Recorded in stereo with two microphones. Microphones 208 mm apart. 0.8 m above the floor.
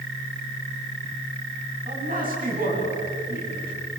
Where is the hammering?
I don't hear hammering.